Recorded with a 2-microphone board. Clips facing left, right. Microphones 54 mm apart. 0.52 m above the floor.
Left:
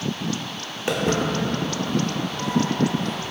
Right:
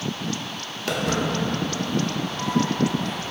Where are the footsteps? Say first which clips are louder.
Left 2 dB; 20° left (ahead or behind), 0.6 m; by 3.3 s 75° left (ahead or behind), 2 m.